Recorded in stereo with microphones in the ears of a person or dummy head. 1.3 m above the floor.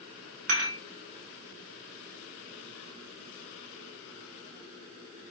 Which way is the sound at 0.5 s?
75° right (ahead or behind).